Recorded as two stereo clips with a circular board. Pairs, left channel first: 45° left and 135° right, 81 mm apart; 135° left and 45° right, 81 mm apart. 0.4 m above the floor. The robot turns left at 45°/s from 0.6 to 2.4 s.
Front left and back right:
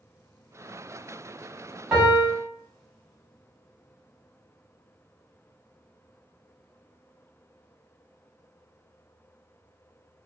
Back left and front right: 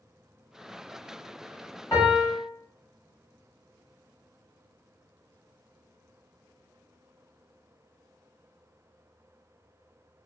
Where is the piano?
145° left, 1.5 m; by 2.4 s 125° left, 1.5 m.